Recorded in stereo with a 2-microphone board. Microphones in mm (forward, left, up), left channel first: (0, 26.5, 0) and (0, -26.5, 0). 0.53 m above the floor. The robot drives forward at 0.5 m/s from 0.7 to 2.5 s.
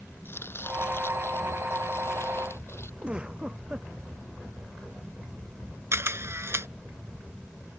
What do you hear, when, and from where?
0.2 s chopping: 45° left (ahead or behind); by 2.9 s 55° left (ahead or behind)
3.0 s a giggle: 20° right (ahead or behind)
5.9 s a camera shutter: 55° right (ahead or behind)